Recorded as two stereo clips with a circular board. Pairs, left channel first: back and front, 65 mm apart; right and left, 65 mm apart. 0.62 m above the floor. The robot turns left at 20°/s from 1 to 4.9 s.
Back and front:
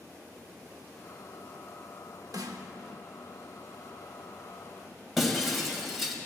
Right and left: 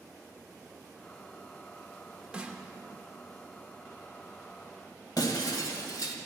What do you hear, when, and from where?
2.3 s a snare drum: 15° left, 0.9 m; by 2.7 s 10° left, 0.9 m
5.2 s breaking glass: 85° right, 1.5 m